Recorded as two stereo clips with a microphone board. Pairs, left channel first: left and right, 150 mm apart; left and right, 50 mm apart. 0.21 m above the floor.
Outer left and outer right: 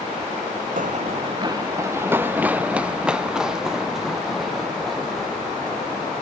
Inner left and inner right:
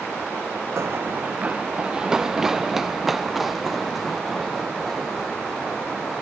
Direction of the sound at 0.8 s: 70° right (ahead or behind).